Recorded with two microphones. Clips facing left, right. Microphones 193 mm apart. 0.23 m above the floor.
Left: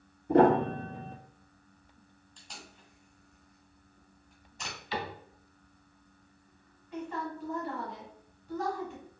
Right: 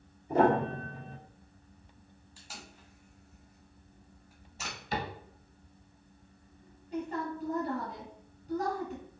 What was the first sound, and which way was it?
A piano, 70° left (ahead or behind).